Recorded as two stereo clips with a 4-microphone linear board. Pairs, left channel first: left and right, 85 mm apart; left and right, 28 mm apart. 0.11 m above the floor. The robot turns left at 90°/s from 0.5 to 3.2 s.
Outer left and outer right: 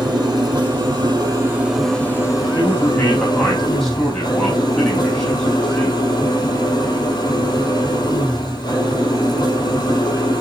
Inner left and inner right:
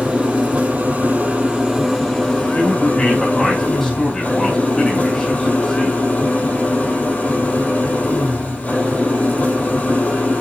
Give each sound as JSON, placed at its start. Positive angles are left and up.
{"t": 0.0, "sound": "an engine running", "azimuth_deg": -60, "distance_m": 3.0}
{"t": 2.5, "sound": "a man speaking", "azimuth_deg": 65, "distance_m": 3.0}